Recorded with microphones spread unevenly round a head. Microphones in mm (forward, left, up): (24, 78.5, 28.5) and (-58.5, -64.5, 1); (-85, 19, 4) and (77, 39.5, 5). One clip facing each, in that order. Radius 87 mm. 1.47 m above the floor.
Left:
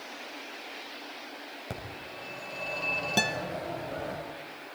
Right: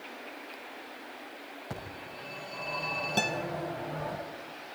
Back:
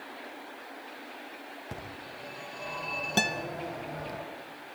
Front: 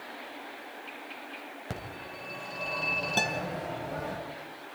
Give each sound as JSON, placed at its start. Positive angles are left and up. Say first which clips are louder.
{"t": 1.7, "sound": "a phone ringing", "louder": "left 1 dB, front 3 dB", "azimuth_deg": 5, "distance_m": 6.0}
{"t": 3.2, "sound": "a guitar", "louder": "left 1 dB, back 2 dB", "azimuth_deg": 120, "distance_m": 0.7}